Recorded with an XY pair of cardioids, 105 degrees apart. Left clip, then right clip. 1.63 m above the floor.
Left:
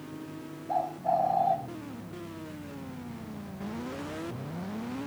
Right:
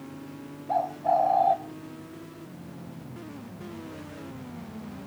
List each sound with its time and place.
0.7 s a bird: 30° right, 1.3 m